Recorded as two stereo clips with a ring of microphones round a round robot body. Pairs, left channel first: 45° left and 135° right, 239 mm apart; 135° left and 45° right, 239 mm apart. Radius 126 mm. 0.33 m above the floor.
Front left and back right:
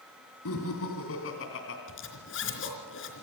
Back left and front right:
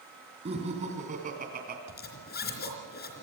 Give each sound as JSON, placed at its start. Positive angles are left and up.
{"t": 0.5, "sound": "laughter", "azimuth_deg": 20, "distance_m": 3.5}
{"t": 1.9, "sound": "a zipper", "azimuth_deg": 85, "distance_m": 3.5}